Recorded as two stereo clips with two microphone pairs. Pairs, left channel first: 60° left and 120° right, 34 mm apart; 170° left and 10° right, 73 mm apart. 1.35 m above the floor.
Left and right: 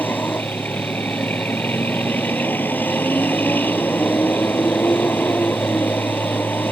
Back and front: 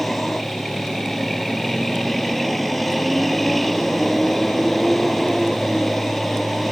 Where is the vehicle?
80° left.